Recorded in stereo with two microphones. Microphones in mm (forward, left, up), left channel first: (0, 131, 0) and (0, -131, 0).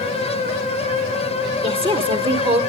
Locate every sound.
1.6 s a woman speaking: 20° right (ahead or behind), 0.9 m